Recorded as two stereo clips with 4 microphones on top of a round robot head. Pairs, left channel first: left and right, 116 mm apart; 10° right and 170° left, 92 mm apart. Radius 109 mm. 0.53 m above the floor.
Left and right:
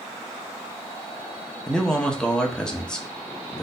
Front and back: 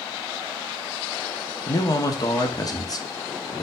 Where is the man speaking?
10° left, 0.9 m.